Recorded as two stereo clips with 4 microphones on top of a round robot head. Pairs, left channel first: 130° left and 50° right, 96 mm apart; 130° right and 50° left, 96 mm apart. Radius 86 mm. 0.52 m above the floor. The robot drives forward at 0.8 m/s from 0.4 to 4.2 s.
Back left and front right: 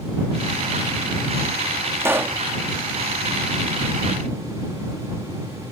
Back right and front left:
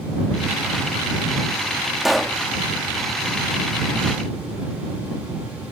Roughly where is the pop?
Ahead right.